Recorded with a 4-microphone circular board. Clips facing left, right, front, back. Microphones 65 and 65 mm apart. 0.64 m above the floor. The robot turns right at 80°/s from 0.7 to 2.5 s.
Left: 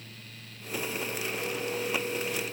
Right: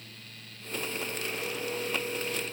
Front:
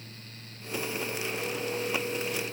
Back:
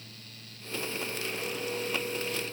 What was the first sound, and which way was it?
Only background noise.